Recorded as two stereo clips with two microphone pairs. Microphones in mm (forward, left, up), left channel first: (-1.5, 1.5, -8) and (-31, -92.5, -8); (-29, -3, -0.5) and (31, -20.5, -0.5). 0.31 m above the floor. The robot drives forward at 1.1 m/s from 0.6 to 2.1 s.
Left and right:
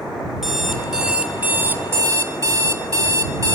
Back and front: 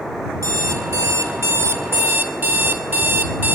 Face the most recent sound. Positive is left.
turn(degrees=-65)